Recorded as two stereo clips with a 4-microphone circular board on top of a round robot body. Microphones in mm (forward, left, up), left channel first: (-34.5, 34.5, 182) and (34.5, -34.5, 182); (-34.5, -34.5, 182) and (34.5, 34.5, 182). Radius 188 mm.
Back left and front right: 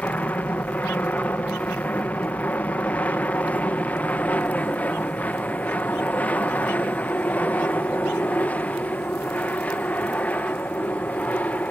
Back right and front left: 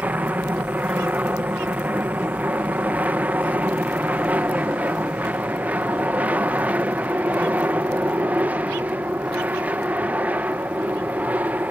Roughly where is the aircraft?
Left.